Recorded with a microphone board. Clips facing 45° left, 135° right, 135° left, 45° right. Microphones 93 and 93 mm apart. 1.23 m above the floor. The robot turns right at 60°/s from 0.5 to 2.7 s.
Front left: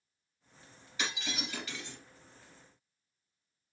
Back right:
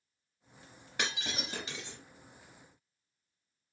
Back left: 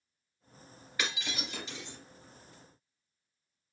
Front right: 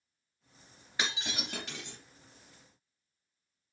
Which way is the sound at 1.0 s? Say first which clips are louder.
Back right 1 dB, even; 110° right.